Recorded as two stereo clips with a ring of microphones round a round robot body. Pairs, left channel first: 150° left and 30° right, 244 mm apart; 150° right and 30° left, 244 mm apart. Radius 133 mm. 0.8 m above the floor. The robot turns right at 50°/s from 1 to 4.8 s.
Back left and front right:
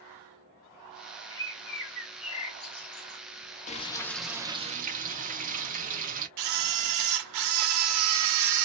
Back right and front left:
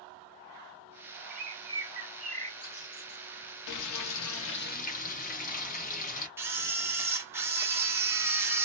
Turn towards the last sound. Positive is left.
turn(degrees=-50)